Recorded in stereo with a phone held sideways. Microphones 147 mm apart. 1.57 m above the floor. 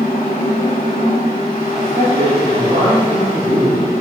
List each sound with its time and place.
0.0 s a fan: 80° left, 1.5 m
1.7 s a man speaking: 55° right (ahead or behind), 3 m